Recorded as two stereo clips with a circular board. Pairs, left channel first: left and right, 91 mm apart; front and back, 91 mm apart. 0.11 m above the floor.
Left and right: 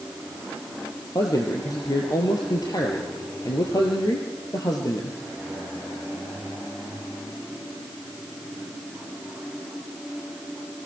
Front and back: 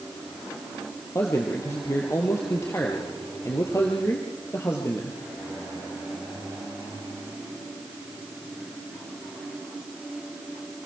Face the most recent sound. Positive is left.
turn(degrees=55)